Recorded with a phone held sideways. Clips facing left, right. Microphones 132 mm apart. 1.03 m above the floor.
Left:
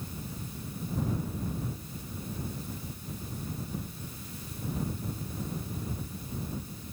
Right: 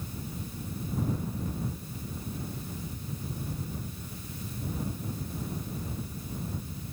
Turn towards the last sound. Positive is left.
turn(degrees=-80)